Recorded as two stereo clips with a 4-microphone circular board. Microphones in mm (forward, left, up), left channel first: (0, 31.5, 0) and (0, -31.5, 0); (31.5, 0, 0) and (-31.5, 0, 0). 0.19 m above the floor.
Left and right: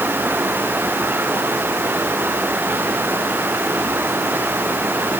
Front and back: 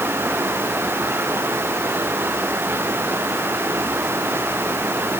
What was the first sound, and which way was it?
Only background noise.